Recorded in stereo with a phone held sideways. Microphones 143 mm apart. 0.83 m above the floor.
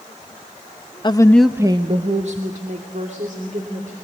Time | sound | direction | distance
1.0 | a woman speaking | 35° left (ahead or behind) | 1.0 m